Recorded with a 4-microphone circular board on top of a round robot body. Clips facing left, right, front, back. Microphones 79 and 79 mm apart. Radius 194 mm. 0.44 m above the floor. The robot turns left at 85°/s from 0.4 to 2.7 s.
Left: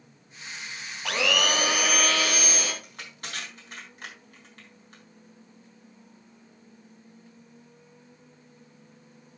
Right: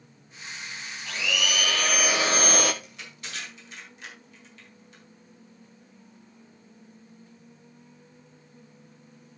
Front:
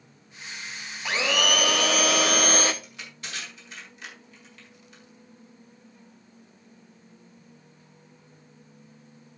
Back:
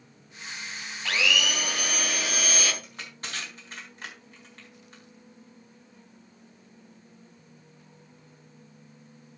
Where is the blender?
75° left, 0.5 m; by 2.7 s 65° right, 0.5 m.